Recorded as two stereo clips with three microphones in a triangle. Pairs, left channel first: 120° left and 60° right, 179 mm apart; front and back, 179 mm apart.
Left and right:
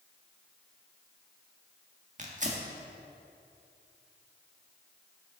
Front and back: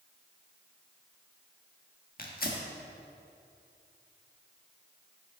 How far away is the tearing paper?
About 1.6 m.